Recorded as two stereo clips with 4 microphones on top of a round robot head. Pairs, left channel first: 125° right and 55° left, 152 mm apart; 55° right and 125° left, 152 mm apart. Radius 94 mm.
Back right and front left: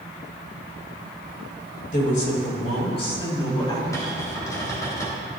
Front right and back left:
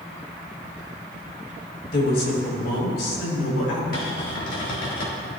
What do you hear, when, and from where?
1.9 s a woman speaking: 85° right, 4.5 m; by 3.8 s 60° right, 4.5 m
3.9 s a cupboard door: 55° right, 4 m